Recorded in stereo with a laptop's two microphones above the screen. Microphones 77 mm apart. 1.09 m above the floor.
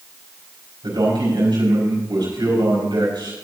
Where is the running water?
No running water in this recording.